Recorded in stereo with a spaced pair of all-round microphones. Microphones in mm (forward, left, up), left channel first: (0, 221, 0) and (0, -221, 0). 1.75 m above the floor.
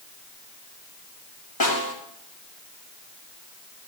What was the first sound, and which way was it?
A snare drum, 55° left (ahead or behind).